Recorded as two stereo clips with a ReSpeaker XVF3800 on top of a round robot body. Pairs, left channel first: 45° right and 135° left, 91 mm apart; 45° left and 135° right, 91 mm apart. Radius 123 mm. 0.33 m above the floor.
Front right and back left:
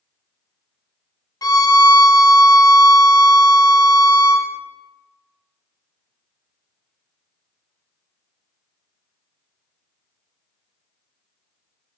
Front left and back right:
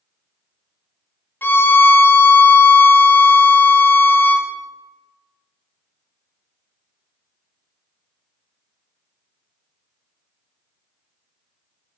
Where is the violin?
15° right, 0.7 m.